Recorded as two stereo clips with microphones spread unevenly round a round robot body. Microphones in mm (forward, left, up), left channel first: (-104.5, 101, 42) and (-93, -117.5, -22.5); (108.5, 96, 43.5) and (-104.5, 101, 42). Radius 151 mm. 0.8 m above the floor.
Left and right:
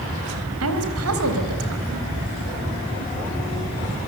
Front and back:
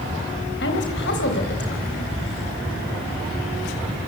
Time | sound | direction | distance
0.6 | a woman speaking | 55° right | 4 m